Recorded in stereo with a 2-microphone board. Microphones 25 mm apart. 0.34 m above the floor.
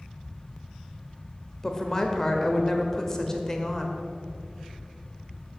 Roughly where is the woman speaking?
Centre.